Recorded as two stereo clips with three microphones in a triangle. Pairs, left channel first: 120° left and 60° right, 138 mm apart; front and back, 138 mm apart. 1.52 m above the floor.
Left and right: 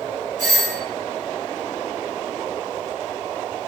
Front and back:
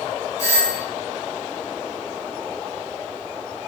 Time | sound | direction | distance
0.4 | a doorbell | 65° right | 2 m